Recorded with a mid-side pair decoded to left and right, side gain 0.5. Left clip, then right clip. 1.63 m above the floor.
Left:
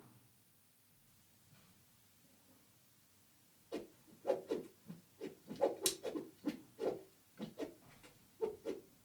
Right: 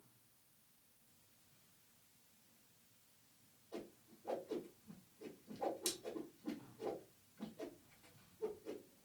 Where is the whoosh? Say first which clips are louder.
Left 4 dB; 50° left, 1.6 m.